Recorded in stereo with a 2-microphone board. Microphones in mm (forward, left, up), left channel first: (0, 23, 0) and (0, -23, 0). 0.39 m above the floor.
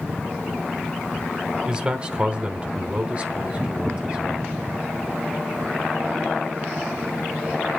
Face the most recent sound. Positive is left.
turn(degrees=-25)  # may be behind; listen again after turning